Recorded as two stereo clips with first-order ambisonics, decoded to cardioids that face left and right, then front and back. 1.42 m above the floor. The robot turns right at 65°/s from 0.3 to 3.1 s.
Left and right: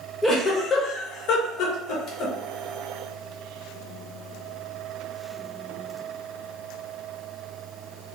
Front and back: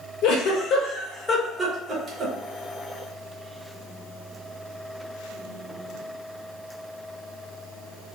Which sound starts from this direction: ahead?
A giggle, at 0.2 s.